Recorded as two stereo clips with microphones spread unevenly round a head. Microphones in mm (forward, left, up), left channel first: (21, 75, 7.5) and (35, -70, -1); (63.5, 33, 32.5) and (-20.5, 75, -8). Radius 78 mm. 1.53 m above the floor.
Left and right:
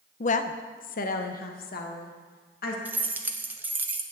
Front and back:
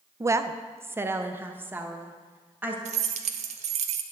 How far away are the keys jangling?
About 0.6 m.